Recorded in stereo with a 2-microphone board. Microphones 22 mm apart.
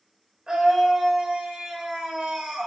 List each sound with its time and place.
0.5 s a scream: 35° right (ahead or behind), 1.1 m